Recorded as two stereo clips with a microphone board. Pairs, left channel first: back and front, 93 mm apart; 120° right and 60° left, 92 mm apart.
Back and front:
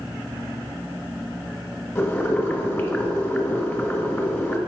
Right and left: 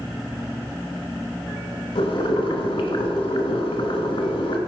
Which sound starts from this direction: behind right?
Boiling, at 1.9 s.